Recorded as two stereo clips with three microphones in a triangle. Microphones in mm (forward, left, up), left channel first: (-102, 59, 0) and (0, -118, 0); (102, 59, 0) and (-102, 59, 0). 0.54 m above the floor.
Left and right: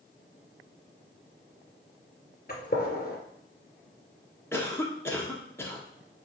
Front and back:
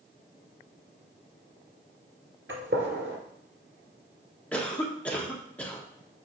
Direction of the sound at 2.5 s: 165° left.